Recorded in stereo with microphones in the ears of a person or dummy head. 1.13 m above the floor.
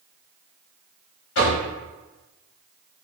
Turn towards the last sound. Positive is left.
turn(degrees=75)  # may be behind; listen again after turning